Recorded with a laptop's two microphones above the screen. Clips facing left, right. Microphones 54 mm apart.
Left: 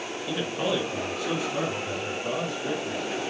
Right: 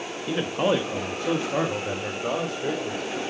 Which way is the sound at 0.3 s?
25° right (ahead or behind).